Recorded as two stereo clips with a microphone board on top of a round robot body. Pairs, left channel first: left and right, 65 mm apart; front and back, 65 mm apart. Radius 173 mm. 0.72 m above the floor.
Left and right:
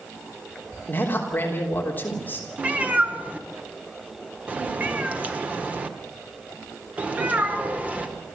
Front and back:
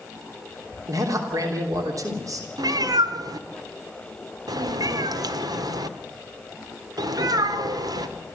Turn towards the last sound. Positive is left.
turn(degrees=-160)